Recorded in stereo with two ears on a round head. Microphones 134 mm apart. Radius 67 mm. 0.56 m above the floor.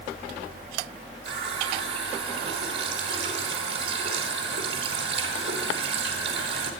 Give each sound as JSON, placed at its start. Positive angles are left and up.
{"t": 1.2, "sound": "a running tap", "side_deg": -35, "distance_m": 4.0}